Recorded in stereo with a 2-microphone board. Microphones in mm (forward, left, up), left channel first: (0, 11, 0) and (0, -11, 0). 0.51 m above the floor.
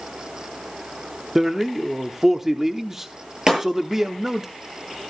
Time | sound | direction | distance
1.4 | a man speaking | 15° right (ahead or behind) | 0.9 m
3.5 | breaking glass | 25° right (ahead or behind) | 8 m